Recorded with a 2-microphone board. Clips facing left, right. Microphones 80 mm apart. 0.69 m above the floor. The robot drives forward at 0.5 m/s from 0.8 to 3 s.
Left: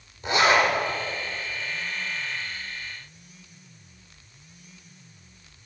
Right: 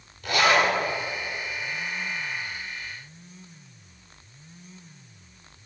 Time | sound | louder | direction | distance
0.2 | a zipper | left 1 dB | 25° left (ahead or behind) | 2.5 m